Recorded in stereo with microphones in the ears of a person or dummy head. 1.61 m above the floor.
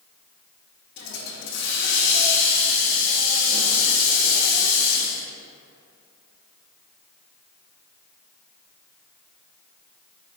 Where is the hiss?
70° left (ahead or behind), 0.7 m.